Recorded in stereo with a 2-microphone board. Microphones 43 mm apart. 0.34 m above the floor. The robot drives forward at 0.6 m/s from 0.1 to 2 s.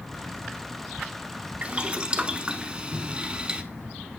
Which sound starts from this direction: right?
Boiling, at 1.6 s.